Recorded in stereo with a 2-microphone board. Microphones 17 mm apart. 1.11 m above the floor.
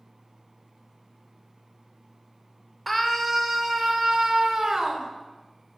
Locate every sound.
2.9 s a scream: 10° left (ahead or behind), 3.5 m; by 5.1 s 45° right (ahead or behind), 4 m